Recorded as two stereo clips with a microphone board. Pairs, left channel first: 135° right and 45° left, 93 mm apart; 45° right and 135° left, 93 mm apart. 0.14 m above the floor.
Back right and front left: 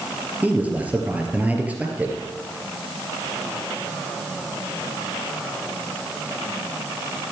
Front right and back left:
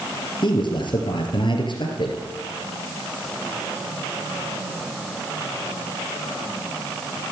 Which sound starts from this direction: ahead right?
A man speaking, at 0.4 s.